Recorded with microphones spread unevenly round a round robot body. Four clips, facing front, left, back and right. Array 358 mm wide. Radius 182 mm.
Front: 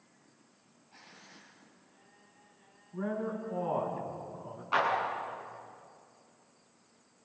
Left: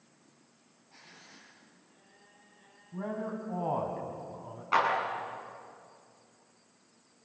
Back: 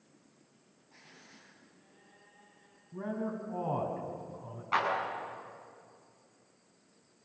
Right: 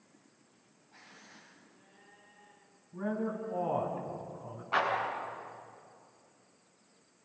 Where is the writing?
145° left, 8.5 m.